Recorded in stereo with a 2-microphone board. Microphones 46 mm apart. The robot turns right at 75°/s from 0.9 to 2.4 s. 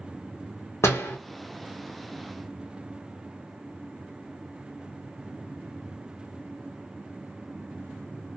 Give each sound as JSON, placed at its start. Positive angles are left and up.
{"t": 0.8, "sound": "a door slam", "side_deg": 80, "distance_m": 0.9}